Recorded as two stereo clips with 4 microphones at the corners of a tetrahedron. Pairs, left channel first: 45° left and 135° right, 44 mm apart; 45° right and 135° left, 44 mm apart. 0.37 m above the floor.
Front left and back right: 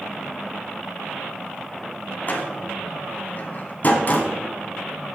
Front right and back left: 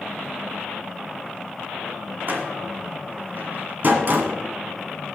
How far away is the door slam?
About 1.9 m.